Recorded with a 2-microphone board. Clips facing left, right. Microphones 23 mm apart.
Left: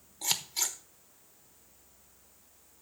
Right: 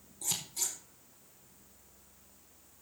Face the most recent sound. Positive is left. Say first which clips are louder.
# left 5 dB
turn(degrees=50)  # may be behind; listen again after turning